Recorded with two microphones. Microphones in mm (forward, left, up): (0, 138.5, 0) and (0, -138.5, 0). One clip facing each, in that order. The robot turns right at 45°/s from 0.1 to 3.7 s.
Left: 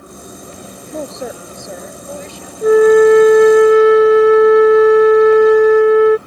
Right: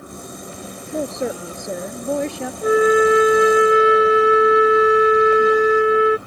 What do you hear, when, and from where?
0.9 s a woman speaking: 170° right; by 2.5 s 100° right
2.6 s a flute: 60° left; by 6.2 s 110° left